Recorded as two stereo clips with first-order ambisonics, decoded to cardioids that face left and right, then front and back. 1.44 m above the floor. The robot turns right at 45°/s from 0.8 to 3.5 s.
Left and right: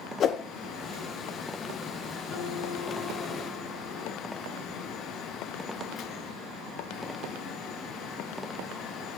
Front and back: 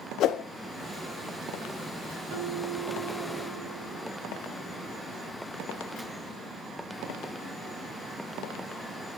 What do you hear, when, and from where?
0.2 s a whoosh: 40° left, 0.5 m
2.3 s a guitar: 165° left, 4.5 m; by 5.2 s 145° right, 4.5 m